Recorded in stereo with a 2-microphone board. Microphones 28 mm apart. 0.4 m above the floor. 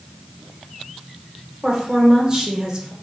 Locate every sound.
1.6 s a woman speaking: 25° right (ahead or behind), 1.1 m